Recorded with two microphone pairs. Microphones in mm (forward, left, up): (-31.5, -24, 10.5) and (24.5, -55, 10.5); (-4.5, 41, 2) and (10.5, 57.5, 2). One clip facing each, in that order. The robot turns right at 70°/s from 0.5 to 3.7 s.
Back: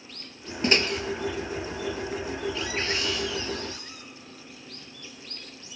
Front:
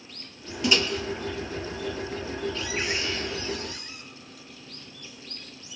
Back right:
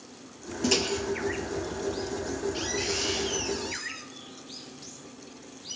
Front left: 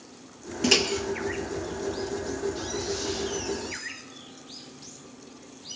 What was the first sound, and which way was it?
A microwave, 100° left.